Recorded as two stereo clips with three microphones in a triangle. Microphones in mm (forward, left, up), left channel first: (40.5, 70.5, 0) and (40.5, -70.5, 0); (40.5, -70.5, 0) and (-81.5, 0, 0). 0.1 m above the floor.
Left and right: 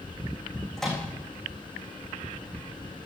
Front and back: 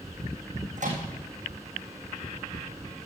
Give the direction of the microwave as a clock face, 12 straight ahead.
6 o'clock.